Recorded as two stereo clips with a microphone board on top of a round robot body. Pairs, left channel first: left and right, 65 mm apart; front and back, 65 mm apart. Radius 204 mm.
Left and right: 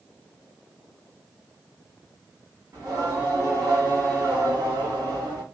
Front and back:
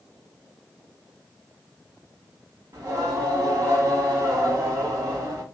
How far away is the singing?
About 2.5 m.